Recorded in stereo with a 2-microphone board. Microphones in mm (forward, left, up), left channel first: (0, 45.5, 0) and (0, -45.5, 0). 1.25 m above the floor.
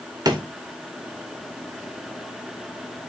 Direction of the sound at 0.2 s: 45° right (ahead or behind).